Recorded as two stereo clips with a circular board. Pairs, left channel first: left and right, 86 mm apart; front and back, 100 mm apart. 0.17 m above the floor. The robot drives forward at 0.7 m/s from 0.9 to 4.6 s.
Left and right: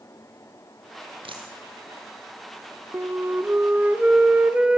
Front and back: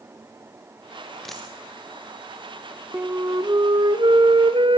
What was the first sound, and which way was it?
A dropped coin, 85° right.